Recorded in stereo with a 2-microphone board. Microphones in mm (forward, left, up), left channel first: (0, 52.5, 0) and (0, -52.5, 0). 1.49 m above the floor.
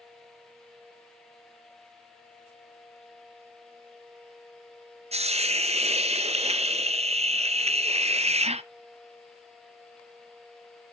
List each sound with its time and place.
5.1 s a hiss: 75° right (ahead or behind), 0.5 m